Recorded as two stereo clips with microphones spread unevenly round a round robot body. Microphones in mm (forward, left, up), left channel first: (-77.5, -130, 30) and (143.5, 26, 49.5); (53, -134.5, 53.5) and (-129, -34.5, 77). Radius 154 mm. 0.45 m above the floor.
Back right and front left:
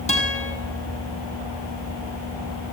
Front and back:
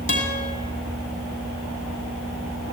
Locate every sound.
0.1 s a guitar: 80° right, 6.5 m